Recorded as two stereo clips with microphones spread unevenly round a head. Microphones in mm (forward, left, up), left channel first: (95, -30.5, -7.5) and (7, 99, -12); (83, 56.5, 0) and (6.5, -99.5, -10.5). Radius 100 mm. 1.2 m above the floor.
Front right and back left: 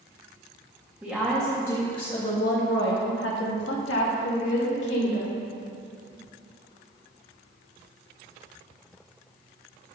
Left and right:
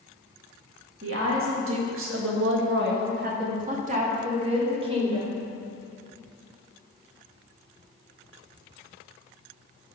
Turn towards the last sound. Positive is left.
turn(degrees=-55)